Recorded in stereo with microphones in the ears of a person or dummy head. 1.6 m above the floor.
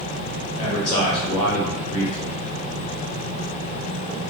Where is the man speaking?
15° left (ahead or behind), 0.7 m.